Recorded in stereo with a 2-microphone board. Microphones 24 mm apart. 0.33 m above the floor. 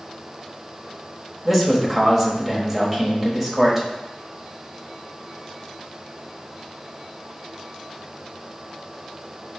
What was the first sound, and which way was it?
A man speaking, 10° right (ahead or behind).